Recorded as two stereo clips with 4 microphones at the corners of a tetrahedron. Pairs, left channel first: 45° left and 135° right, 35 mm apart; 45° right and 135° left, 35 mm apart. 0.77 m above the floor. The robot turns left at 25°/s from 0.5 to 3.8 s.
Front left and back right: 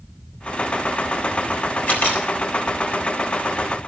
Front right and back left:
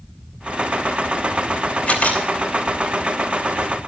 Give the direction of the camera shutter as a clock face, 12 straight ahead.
12 o'clock.